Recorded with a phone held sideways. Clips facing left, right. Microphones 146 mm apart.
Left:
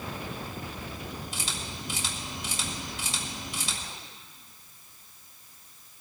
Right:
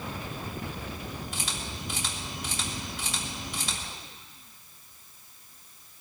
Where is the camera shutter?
60° right (ahead or behind), 3.5 m.